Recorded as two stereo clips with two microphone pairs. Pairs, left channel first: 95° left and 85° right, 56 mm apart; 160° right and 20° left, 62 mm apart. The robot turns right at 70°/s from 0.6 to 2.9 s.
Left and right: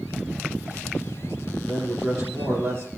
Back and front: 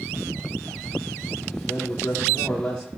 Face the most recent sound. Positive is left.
turn(degrees=-85)